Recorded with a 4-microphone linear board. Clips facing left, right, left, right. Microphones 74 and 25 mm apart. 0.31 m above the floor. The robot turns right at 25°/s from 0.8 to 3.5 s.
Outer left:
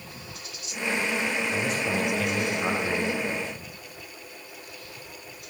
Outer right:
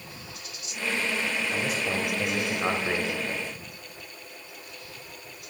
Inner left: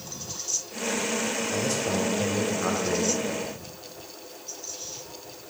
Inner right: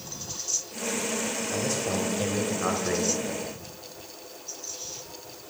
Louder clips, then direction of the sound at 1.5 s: Outer left 2 dB, even; straight behind.